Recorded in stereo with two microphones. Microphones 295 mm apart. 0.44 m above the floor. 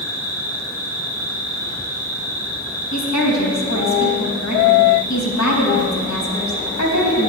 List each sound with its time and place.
0.0 s an insect: 65° left (ahead or behind), 5.5 m
2.9 s a woman speaking: 70° left (ahead or behind), 3.5 m